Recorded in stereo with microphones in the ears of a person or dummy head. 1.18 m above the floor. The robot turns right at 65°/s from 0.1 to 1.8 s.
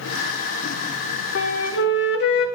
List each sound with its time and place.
1.4 s a flute: 65° left (ahead or behind), 0.9 m; by 2.5 s 60° left (ahead or behind), 0.9 m